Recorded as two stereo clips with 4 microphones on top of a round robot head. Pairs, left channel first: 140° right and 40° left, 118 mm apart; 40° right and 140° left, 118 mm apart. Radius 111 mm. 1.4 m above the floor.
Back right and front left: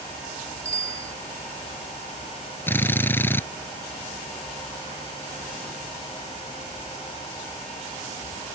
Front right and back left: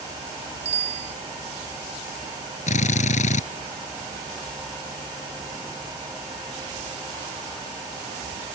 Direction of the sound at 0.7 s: 110° left.